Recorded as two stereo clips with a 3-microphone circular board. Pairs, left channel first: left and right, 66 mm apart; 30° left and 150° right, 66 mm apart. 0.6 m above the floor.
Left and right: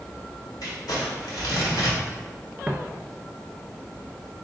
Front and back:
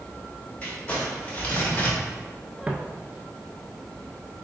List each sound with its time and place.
0.6 s crumpling: 85° left, 1.5 m
2.7 s footsteps: 140° right, 0.5 m